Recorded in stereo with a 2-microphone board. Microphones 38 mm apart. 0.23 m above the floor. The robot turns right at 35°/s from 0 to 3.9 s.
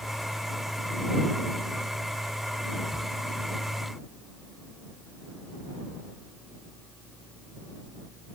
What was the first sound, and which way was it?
Only background noise.